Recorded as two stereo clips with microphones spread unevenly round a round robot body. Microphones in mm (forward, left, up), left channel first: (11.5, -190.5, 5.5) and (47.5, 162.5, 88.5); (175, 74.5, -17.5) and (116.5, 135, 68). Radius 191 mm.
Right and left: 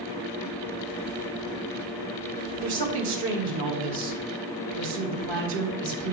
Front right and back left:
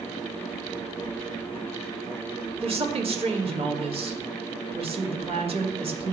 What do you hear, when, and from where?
2.6 s a woman speaking: 90° left, 1.8 m